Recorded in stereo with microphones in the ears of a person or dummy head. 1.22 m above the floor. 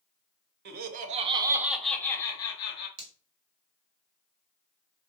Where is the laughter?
60° right (ahead or behind), 0.7 m; by 2.9 s 35° left (ahead or behind), 1.0 m.